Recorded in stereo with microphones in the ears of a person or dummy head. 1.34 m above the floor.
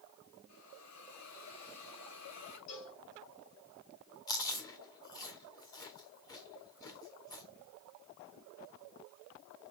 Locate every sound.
0.5 s a hiss: 80° left, 3.5 m
2.7 s a cowbell: 75° left (ahead or behind), 3 m
4.3 s chewing: 20° left (ahead or behind), 1.4 m